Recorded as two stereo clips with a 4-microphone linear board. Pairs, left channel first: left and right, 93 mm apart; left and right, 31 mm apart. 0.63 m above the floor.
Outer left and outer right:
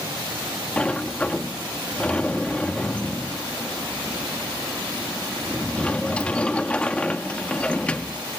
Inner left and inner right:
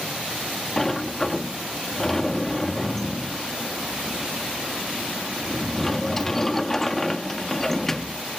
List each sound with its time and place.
0.8 s a sliding door: 10° left (ahead or behind)